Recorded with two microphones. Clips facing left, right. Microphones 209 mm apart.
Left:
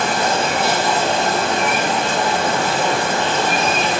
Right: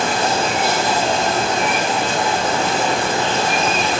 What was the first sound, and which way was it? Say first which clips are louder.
Running water: even; 60° left (ahead or behind).